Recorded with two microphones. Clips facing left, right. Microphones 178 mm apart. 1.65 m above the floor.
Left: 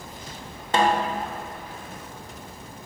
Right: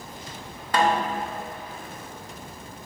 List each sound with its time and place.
0.7 s a snare drum: 25° left (ahead or behind), 0.6 m